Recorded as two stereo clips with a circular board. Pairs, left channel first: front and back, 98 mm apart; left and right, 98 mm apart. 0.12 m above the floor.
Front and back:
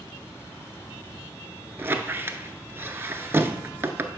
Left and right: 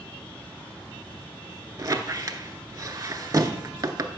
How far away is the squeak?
About 0.5 m.